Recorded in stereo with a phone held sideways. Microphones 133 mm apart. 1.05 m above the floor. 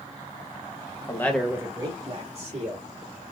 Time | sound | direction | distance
1.1 | a man speaking | 25° left (ahead or behind) | 0.9 m